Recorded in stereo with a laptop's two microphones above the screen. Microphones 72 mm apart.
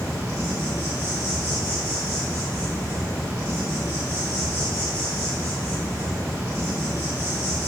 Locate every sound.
0.0 s an insect: 35° left (ahead or behind), 1.9 m